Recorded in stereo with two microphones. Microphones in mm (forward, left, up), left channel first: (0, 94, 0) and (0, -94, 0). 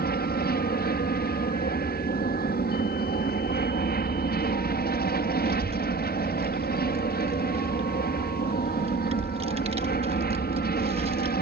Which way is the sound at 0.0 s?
55° left (ahead or behind).